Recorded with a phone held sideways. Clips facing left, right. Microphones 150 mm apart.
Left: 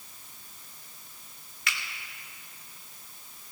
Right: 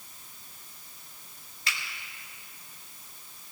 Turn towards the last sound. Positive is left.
turn(degrees=-35)  # may be behind; listen again after turning